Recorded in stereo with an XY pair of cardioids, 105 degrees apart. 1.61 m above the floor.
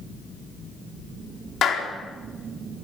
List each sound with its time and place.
1.6 s a clap: 55° left, 4 m